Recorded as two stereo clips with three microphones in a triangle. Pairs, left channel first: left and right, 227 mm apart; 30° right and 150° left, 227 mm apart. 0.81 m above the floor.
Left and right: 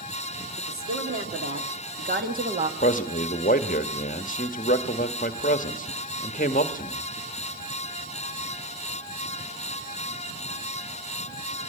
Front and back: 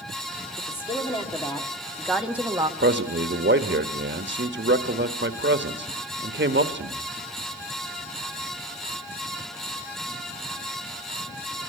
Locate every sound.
0.6 s a woman speaking: 90° right, 3 m; by 2.7 s 145° right, 1.3 m
2.8 s a man speaking: 135° left, 1.0 m